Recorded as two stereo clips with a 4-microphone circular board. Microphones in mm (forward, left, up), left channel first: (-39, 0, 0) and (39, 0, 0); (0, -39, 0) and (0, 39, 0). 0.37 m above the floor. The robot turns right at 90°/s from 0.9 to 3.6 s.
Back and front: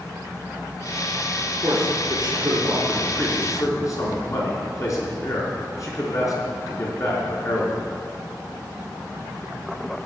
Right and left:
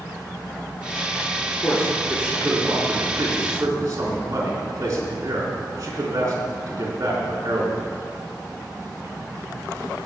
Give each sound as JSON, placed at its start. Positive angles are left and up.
{"t": 1.6, "sound": "a man speaking", "azimuth_deg": -40, "distance_m": 3.5}